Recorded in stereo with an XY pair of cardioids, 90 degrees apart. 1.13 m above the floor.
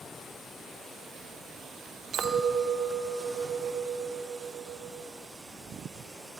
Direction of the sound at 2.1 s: 70° right.